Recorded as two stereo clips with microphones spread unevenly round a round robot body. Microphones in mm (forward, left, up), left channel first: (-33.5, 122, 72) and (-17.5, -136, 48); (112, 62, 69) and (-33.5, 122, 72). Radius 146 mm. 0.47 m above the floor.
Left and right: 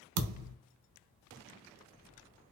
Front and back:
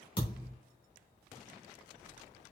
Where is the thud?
85° right, 0.5 m.